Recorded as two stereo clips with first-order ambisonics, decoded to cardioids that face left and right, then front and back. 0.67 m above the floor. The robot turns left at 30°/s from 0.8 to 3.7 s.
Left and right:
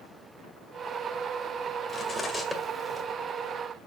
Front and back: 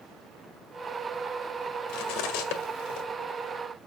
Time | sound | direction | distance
1.9 | cutlery clinking | 20° left | 1.8 m